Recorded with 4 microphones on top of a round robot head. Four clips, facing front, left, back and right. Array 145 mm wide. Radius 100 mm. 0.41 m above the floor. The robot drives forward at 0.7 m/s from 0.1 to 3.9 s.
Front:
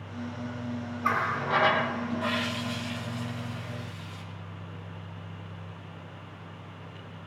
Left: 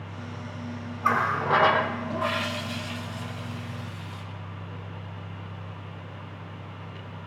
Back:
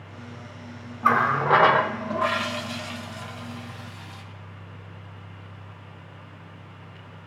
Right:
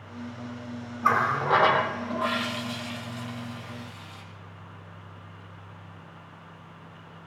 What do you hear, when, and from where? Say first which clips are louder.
1.0 s a running tap: right 1 dB, back 8 dB; 165° right, 0.8 m; by 4.2 s 175° right, 2.5 m